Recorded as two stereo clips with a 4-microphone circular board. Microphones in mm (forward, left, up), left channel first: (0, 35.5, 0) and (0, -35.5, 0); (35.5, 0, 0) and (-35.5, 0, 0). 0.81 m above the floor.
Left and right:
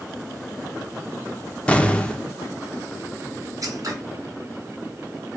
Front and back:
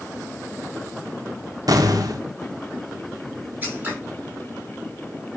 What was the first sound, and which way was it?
An explosion, 160° left.